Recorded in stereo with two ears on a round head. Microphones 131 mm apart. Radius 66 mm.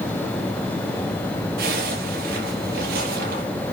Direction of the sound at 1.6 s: 75° right (ahead or behind).